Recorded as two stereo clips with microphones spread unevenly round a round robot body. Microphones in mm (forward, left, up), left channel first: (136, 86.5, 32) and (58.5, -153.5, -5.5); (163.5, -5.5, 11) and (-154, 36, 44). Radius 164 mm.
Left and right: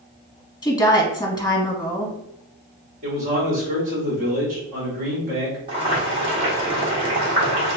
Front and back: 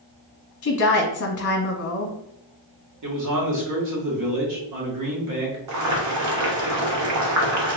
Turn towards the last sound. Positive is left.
turn(degrees=-165)